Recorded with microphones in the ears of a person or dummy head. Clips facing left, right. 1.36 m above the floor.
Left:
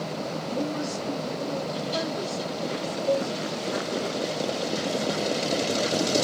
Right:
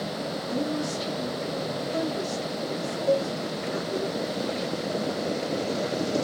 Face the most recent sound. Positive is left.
turn(degrees=-25)  # may be behind; listen again after turning